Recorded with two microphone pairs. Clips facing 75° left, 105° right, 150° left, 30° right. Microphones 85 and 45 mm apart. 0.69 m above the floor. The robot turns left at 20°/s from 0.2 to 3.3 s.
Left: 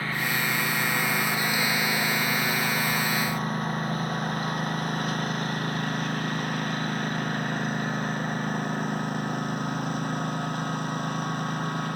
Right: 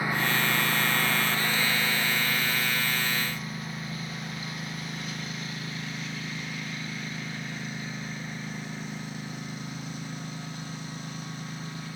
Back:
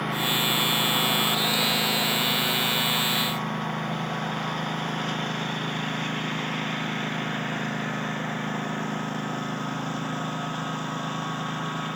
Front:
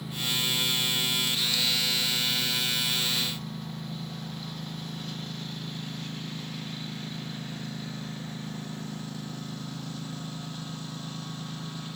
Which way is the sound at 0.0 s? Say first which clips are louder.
Right 1 dB, back 6 dB; straight behind.